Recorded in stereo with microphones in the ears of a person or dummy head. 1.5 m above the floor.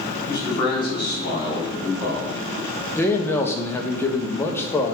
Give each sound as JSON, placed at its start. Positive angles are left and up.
{"t": 0.3, "sound": "a man speaking", "side_deg": 25, "distance_m": 3.5}
{"t": 3.0, "sound": "a man speaking", "side_deg": 15, "distance_m": 1.0}